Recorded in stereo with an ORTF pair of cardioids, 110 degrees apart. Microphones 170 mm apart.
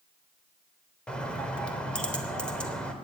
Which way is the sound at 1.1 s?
5° left.